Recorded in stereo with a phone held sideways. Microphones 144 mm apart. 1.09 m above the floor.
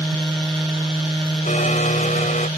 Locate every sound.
1.5 s a blender: 60° left (ahead or behind)